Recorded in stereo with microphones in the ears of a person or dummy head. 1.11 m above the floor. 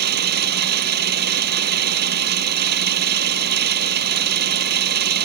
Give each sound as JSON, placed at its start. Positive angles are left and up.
{"t": 0.0, "sound": "an engine running", "side_deg": -55}